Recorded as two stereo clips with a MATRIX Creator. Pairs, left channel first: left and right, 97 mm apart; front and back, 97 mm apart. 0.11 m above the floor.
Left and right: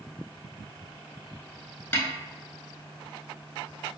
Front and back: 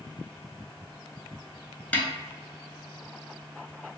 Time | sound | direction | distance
1.9 | a snare drum | 55° left | 0.5 m